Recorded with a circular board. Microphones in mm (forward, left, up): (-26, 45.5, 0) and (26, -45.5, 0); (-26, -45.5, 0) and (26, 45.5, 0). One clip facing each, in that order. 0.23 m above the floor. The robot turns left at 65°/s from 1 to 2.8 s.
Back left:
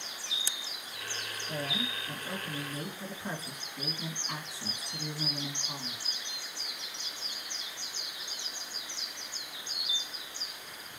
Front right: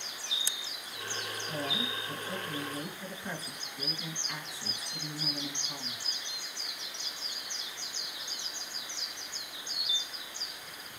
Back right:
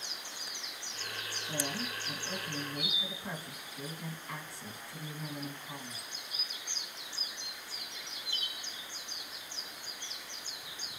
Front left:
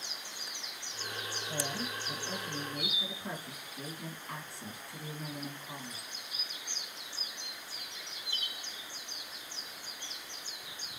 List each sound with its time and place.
1.5 s a woman speaking: 125° right, 1.7 m; by 6.0 s 150° left, 1.7 m